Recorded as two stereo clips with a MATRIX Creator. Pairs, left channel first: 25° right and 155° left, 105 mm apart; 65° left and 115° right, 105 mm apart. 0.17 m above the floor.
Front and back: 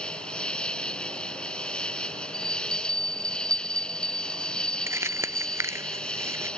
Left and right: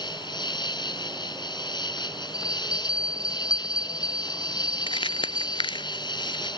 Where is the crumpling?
95° left.